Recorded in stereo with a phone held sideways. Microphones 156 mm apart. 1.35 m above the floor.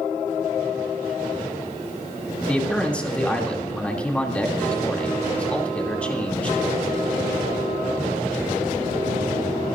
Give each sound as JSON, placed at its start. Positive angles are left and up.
{"t": 2.5, "sound": "a man speaking", "side_deg": 10, "distance_m": 2.5}